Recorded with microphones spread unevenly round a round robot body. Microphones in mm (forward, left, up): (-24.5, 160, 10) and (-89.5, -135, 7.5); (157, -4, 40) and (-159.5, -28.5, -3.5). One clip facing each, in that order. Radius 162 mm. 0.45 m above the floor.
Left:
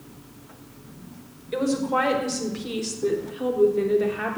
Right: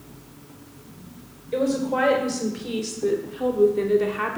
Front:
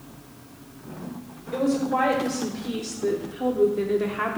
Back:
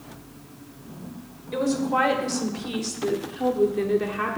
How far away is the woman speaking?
About 1.9 m.